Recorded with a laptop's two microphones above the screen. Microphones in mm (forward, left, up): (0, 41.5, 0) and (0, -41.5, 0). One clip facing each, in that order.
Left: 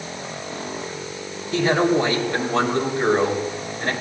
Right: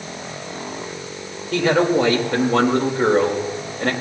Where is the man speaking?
60° right (ahead or behind), 4.5 m.